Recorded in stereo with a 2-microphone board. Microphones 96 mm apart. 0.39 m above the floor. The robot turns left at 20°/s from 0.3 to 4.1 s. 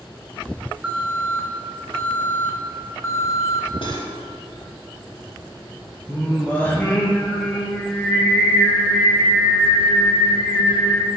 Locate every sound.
0.8 s an alarm: 165° right, 1.8 m; by 3.7 s 140° left, 1.8 m
3.8 s cutlery clinking: 65° left (ahead or behind), 1.1 m; by 4.1 s 60° left (ahead or behind), 1.1 m
6.1 s singing: 20° left (ahead or behind), 1.7 m